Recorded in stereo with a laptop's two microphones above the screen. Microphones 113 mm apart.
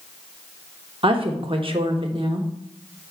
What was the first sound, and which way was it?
A woman speaking, 50° right (ahead or behind).